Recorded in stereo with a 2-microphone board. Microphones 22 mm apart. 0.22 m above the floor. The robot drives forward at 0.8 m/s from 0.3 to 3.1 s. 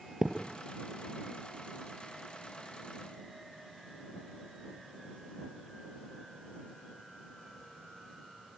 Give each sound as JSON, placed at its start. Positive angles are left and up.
{"t": 0.2, "sound": "a thud", "side_deg": -25, "distance_m": 2.5}